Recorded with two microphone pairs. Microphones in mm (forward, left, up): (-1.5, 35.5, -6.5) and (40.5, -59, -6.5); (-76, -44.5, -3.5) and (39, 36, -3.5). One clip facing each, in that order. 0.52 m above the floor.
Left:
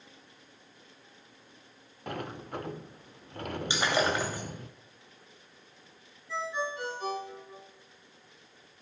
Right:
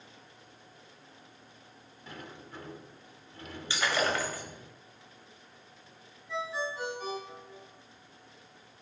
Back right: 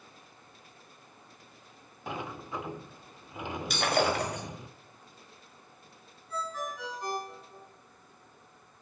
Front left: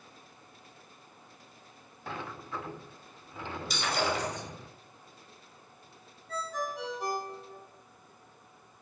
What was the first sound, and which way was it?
A sliding door, 140° left.